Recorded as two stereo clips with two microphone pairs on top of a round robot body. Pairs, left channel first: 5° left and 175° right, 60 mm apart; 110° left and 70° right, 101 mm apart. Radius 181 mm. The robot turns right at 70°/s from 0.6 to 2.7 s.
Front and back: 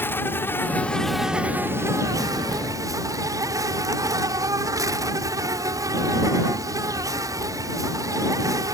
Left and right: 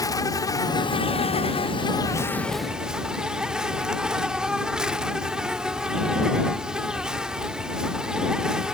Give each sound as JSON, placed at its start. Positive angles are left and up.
{"t": 0.0, "sound": "an insect", "azimuth_deg": 60}